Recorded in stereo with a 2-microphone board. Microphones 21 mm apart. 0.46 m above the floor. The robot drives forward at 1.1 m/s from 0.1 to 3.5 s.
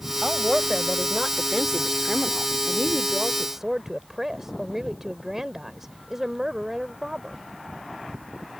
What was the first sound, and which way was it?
A woman speaking, 10° right (ahead or behind).